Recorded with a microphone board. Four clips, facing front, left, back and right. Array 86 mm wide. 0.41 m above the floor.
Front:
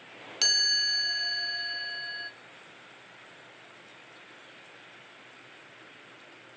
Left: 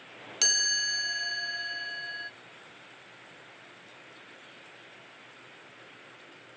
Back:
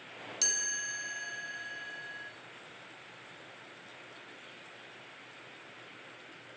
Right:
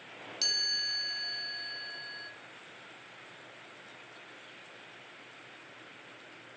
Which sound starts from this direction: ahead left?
A chime, at 0.4 s.